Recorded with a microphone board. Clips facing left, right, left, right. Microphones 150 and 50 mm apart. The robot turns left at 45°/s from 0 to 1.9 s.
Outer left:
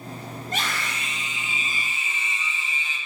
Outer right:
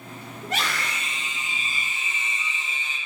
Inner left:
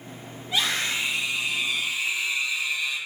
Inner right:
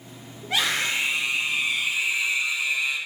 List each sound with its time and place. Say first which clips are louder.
0.4 s a scream: outer right 2 dB, inner right 2 dB; 95° right, 6 m; by 3.0 s 160° right, 6 m